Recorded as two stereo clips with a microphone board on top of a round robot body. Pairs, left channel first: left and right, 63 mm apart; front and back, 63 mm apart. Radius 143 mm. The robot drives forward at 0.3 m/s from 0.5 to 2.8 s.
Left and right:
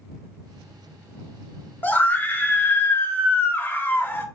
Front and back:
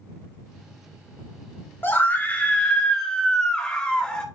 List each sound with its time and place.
1.8 s a scream: 40° left, 1.0 m; by 4.2 s 70° left, 0.9 m